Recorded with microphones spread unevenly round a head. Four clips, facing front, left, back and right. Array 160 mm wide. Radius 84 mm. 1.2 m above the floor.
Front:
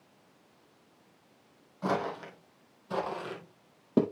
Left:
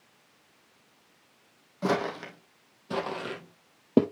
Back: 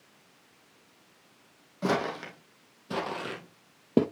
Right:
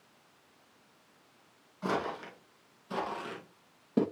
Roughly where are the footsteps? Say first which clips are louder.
Left 5 dB, back 2 dB; behind left.